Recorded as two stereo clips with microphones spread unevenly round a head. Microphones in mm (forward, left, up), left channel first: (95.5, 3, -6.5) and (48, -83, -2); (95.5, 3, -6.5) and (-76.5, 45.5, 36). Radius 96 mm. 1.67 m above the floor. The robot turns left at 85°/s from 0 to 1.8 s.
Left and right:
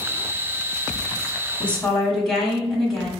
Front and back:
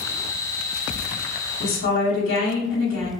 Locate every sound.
1.6 s a woman speaking: 5° right, 1.2 m; by 3.1 s 25° right, 1.2 m